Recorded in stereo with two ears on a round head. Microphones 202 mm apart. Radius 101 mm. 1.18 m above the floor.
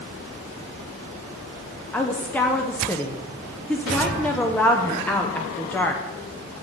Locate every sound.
1.9 s a woman speaking: 5° left (ahead or behind), 0.5 m